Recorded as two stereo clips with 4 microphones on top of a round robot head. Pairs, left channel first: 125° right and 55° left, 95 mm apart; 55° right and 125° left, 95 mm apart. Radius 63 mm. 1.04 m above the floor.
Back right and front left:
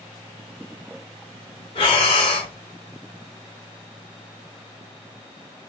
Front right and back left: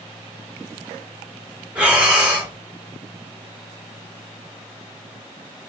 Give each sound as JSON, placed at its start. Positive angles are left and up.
{"t": 1.8, "sound": "breathing", "azimuth_deg": -160, "distance_m": 1.7}